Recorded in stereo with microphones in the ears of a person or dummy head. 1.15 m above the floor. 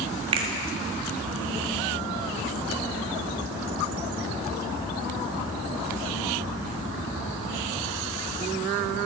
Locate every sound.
0.3 s a finger snap: 25° right (ahead or behind), 1.6 m